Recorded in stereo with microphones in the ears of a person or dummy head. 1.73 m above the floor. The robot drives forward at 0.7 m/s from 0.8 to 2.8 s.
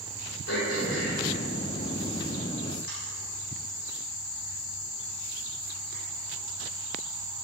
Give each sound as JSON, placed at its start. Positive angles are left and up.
{"t": 0.5, "sound": "throat clearing", "side_deg": 75, "distance_m": 5.0}